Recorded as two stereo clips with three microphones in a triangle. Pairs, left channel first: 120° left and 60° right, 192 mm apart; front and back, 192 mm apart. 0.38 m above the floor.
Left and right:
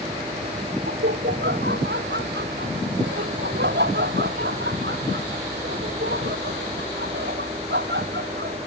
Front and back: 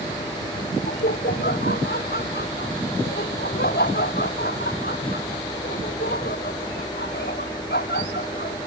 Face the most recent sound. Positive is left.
turn(degrees=-35)